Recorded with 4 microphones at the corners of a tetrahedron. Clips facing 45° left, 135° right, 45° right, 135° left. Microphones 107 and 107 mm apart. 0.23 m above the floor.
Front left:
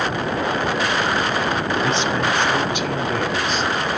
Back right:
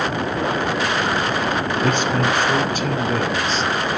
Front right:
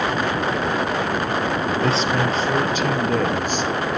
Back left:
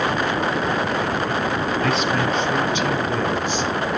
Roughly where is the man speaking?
Right.